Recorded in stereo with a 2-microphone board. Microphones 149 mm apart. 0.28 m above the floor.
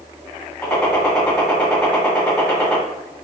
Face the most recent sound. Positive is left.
turn(degrees=5)  # may be behind; listen again after turning